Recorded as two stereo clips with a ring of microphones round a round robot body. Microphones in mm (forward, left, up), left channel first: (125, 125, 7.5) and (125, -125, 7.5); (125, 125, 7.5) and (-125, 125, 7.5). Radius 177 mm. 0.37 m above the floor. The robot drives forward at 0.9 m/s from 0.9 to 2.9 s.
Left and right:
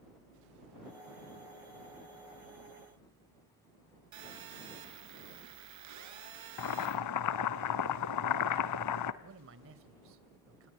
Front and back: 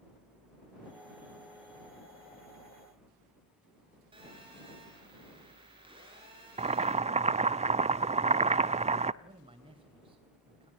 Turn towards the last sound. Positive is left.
turn(degrees=-110)